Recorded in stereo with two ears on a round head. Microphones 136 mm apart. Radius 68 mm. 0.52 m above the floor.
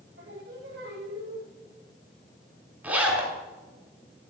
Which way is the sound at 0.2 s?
75° right (ahead or behind).